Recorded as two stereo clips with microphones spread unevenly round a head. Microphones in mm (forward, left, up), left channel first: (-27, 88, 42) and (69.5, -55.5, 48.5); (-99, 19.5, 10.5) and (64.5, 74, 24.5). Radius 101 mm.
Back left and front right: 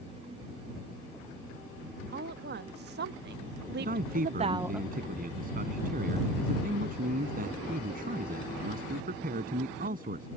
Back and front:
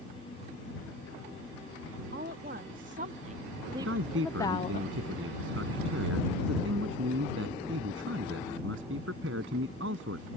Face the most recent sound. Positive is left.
turn(degrees=-15)